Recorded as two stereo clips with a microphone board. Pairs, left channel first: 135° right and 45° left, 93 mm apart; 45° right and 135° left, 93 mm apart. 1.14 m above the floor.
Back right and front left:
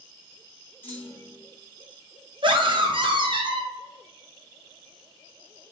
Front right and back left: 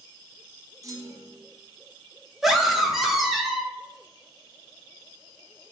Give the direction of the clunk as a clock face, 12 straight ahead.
7 o'clock.